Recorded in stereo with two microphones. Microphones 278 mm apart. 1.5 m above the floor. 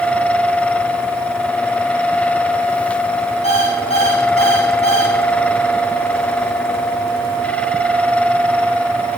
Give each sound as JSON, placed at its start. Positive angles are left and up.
{"t": 3.4, "sound": "an alarm clock", "side_deg": 25, "distance_m": 6.0}